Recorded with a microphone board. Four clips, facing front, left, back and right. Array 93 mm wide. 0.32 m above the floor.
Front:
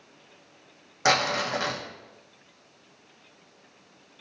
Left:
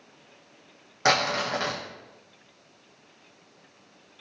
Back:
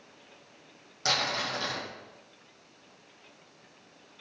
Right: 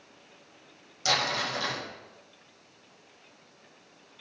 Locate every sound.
1.1 s crumpling: 55° left, 5 m